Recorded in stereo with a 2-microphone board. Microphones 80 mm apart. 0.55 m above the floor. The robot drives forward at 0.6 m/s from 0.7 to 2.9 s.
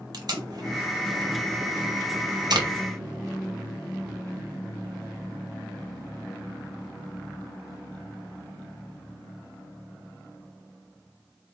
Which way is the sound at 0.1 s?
55° right (ahead or behind).